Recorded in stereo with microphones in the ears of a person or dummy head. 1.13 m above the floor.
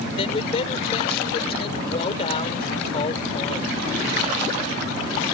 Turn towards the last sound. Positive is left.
turn(degrees=40)  # may be behind; listen again after turning